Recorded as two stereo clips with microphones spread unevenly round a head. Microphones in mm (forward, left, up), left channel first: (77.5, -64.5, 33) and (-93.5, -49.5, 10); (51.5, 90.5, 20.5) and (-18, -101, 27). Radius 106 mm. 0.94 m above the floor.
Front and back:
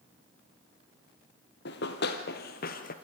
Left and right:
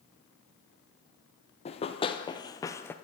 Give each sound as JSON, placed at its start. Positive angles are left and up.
{"t": 1.6, "sound": "running footsteps", "azimuth_deg": 10, "distance_m": 2.0}